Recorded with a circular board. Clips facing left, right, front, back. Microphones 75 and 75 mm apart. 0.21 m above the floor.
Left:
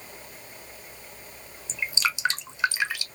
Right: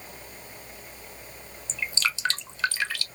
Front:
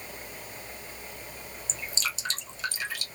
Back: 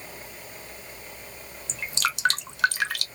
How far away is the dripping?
About 0.6 m.